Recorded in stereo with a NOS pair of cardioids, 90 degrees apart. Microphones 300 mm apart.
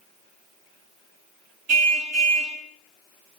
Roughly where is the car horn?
Ahead right.